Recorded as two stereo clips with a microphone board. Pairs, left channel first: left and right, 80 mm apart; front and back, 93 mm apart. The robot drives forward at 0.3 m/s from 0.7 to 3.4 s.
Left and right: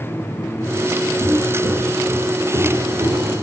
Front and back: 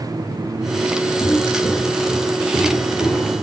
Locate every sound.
1.2 s footsteps: 65° right, 1.5 m; by 3.4 s 95° right, 2.5 m